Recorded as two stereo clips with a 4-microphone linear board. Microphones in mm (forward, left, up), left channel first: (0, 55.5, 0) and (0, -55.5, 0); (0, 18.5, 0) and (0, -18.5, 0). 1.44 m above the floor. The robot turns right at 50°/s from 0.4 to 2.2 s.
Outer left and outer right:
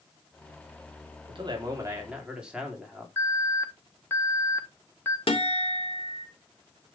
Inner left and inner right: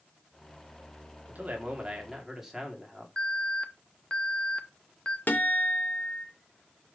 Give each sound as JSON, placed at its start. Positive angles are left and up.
{"t": 1.3, "sound": "a man speaking", "azimuth_deg": -55, "distance_m": 3.0}
{"t": 3.2, "sound": "an alarm", "side_deg": 20, "distance_m": 1.2}
{"t": 5.3, "sound": "a guitar", "side_deg": 60, "distance_m": 2.0}